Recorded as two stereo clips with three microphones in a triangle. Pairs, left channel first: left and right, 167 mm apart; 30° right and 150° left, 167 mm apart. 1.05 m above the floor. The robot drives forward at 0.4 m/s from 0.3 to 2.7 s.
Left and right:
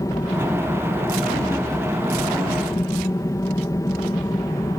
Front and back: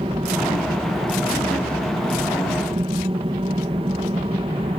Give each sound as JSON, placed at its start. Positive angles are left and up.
{"t": 0.0, "sound": "an aircraft", "azimuth_deg": 140}